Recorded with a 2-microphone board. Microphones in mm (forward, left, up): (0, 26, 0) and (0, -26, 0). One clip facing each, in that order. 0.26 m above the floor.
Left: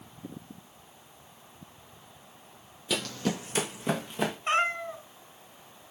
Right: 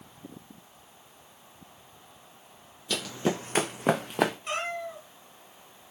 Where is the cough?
I don't hear a cough.